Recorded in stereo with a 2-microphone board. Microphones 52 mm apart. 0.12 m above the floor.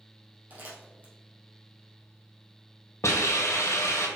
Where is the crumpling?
35° right (ahead or behind), 2.5 m.